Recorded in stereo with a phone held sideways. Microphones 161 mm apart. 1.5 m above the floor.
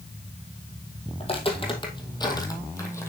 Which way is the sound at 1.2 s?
40° left (ahead or behind).